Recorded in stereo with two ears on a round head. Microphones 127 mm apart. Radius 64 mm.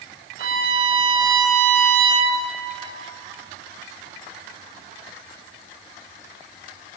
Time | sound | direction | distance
0.4 | a violin | 40° right (ahead or behind) | 1.4 m